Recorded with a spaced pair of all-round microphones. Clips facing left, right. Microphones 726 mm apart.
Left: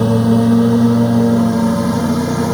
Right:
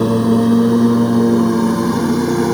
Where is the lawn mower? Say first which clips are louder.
Even; 20° left (ahead or behind); by 2.5 s 15° left (ahead or behind).